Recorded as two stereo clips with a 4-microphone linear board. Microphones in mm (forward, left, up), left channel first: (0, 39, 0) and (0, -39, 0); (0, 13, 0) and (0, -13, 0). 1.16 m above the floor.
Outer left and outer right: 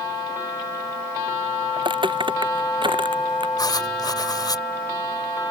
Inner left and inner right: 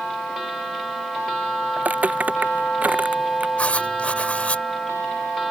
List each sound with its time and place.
1.8 s footsteps: 80° right
3.6 s writing: 55° left (ahead or behind)